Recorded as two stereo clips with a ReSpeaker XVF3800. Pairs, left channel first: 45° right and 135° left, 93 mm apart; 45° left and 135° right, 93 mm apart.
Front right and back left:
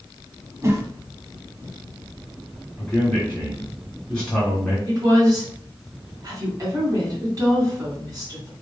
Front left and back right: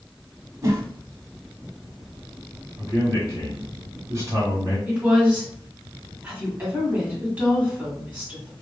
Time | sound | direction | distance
0.6 | a whoosh | straight behind | 0.7 m
2.8 | a man speaking | 115° right | 1.7 m
4.9 | a woman speaking | 160° left | 1.8 m